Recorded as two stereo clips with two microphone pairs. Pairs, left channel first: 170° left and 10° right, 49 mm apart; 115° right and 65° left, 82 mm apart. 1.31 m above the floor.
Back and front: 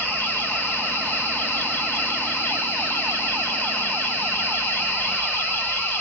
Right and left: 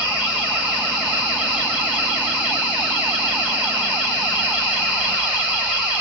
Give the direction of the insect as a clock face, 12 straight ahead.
8 o'clock.